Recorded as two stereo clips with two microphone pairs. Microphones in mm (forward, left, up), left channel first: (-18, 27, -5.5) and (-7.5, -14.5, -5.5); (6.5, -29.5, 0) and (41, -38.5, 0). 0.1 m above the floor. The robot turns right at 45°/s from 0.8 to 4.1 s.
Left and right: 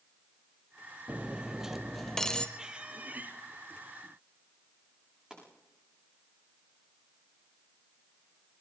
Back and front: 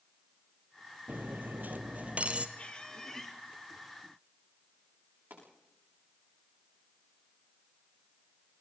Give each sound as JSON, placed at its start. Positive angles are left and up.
{"t": 1.1, "sound": "cutlery clinking", "azimuth_deg": -20, "distance_m": 1.7}
{"t": 2.6, "sound": "a squeak", "azimuth_deg": -145, "distance_m": 1.9}
{"t": 5.3, "sound": "a pop", "azimuth_deg": 0, "distance_m": 8.5}